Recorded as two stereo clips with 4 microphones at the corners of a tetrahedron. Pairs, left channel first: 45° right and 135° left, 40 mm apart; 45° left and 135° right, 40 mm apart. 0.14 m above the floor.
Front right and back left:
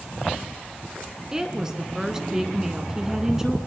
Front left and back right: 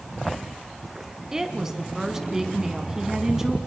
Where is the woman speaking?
Straight behind, 1.7 m.